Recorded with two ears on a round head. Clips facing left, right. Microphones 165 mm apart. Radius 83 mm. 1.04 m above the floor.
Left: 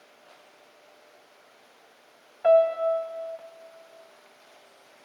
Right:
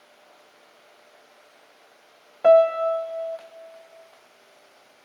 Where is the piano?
50° right (ahead or behind), 1.1 m.